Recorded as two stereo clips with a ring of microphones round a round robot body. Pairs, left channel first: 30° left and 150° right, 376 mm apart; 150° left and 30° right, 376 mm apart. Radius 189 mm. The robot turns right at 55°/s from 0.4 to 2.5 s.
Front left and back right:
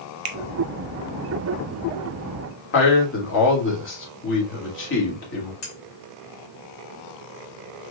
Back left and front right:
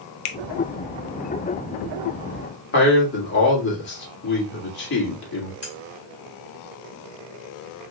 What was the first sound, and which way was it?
A finger snap, straight behind.